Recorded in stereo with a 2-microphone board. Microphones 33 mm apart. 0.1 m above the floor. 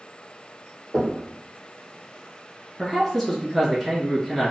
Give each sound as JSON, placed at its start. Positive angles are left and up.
{"t": 0.9, "sound": "knocking", "side_deg": -50, "distance_m": 1.8}
{"t": 2.8, "sound": "a man speaking", "side_deg": -5, "distance_m": 1.6}